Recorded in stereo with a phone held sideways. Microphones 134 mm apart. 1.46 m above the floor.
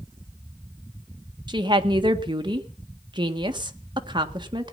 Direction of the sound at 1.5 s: 35° right (ahead or behind).